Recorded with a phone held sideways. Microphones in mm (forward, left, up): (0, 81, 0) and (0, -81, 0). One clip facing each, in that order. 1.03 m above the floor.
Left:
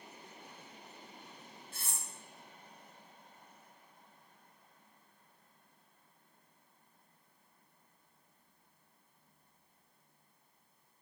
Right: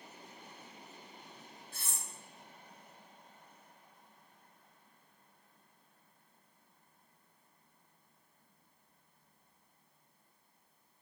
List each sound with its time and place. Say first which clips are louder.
1.7 s cutlery clinking: even; 45° left (ahead or behind), 1.4 m